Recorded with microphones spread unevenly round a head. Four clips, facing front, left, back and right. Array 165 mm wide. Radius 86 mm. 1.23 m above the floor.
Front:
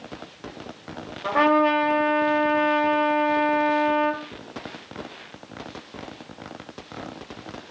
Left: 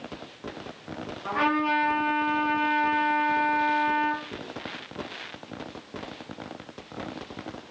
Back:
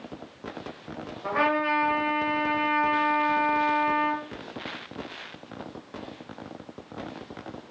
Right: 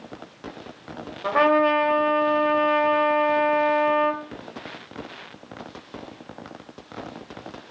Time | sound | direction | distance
1.2 | a trumpet | 65° right | 0.7 m